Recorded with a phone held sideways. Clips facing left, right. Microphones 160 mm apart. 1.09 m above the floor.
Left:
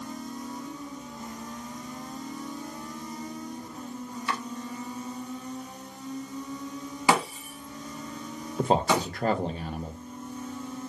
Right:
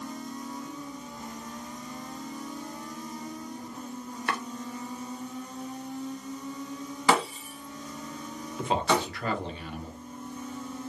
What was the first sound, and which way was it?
Chopping, 60° right (ahead or behind).